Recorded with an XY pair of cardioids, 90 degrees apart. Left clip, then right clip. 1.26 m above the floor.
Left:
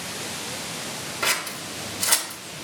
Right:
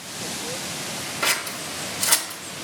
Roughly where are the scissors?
Ahead.